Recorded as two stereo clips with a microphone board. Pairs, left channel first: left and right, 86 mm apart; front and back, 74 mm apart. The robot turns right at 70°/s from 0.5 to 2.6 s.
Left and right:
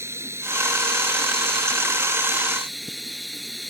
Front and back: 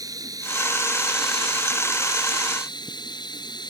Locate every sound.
0.0 s running water: 145° right; by 3.7 s straight ahead